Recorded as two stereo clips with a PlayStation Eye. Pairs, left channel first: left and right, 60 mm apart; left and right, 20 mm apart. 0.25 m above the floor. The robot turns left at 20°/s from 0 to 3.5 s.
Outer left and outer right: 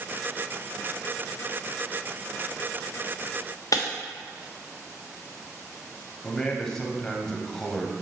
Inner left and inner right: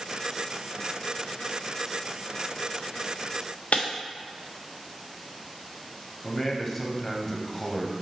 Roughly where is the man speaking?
Centre.